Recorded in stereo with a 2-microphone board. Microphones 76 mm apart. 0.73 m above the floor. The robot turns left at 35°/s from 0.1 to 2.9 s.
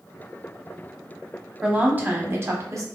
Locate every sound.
1.6 s a woman speaking: 15° right, 0.7 m; by 2.9 s 60° right, 0.7 m